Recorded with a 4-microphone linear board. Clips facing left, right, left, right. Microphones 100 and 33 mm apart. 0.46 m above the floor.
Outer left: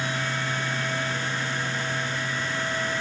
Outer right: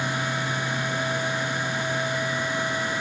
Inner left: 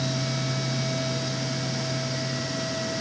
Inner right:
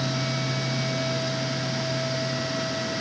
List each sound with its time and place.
Only background noise.